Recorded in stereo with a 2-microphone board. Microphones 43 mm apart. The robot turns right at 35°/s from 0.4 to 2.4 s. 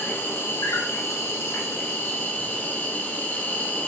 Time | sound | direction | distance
0.0 | an insect | 65° left | 0.7 m